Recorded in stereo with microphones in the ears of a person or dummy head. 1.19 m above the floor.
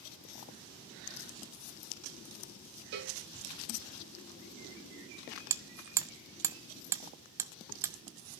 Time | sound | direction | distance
2.9 | a cowbell | 50° right (ahead or behind) | 1.4 m
5.5 | hammering | 15° right (ahead or behind) | 0.5 m